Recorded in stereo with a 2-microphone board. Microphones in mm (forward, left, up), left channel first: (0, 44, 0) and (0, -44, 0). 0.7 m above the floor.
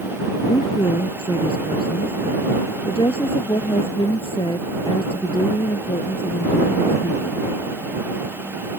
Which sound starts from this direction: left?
A woman speaking, at 0.5 s.